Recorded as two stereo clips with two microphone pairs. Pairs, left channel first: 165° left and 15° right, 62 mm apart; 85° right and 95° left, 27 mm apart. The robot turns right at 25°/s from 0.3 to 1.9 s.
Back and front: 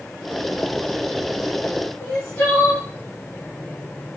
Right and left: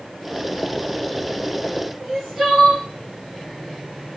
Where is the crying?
140° left, 1.2 m.